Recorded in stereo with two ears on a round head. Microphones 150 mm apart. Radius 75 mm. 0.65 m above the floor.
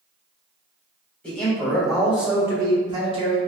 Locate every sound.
1.2 s a man speaking: 10° left (ahead or behind), 1.8 m; by 3.4 s 40° right (ahead or behind), 1.2 m